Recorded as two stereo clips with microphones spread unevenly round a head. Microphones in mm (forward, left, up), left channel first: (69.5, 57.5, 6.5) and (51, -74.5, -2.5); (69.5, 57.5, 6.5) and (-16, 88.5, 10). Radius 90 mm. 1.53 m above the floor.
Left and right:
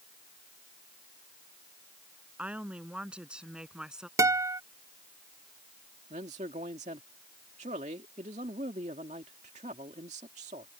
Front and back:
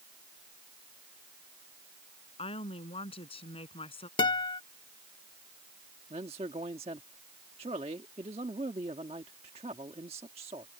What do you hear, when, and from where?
2.4 s a woman speaking: 15° right
4.2 s a guitar: 35° right
6.1 s a man speaking: 155° right